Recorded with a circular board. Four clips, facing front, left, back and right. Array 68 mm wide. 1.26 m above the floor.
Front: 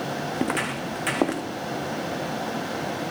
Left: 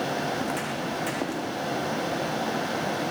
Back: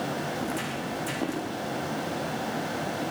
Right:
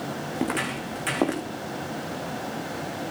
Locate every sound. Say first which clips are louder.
0.4 s footsteps: right 1 dB, front 5 dB; 25° right, 4.5 m; by 1.4 s 30° right, 4 m